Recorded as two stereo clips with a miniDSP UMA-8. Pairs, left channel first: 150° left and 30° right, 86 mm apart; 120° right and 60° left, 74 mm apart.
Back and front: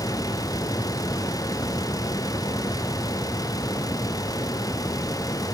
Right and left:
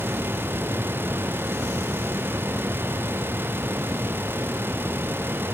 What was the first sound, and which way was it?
Only background noise.